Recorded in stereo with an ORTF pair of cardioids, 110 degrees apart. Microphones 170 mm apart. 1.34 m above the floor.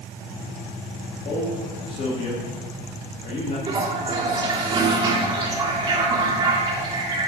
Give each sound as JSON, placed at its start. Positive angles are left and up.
{"t": 1.2, "sound": "a man speaking", "azimuth_deg": 45, "distance_m": 2.5}
{"t": 3.7, "sound": "a toilet flushing", "azimuth_deg": -25, "distance_m": 2.5}